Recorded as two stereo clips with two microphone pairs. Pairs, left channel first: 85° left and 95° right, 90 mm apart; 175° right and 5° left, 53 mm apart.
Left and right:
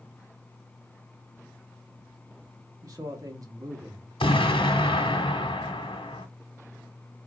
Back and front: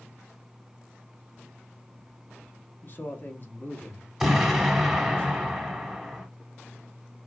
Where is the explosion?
85° left, 1.2 m.